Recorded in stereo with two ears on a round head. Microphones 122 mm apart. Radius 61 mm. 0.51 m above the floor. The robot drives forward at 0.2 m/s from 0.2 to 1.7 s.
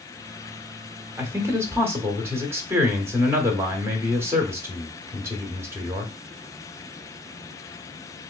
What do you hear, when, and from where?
1.2 s a man speaking: 20° right (ahead or behind), 0.9 m